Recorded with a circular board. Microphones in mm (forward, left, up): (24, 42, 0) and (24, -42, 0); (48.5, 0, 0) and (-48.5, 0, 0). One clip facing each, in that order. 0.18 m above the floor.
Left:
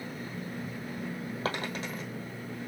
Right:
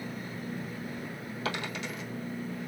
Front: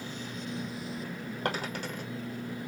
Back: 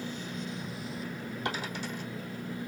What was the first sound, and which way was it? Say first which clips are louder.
A dropped coin: even, front 3 dB; 35° left.